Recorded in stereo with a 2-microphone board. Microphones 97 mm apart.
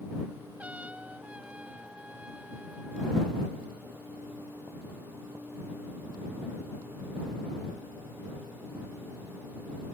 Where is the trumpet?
15° right (ahead or behind).